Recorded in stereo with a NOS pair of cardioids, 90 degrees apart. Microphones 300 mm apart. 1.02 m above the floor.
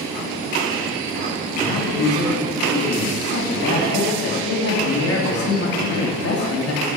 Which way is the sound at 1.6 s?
55° left.